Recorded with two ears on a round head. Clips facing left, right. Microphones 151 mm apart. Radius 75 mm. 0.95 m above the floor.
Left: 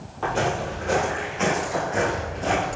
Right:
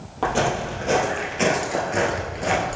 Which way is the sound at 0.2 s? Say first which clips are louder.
Right 2 dB; 60° right (ahead or behind).